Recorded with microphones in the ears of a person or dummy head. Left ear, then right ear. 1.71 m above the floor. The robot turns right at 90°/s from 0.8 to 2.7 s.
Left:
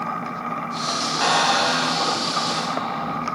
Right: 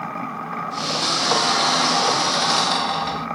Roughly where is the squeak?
Behind left.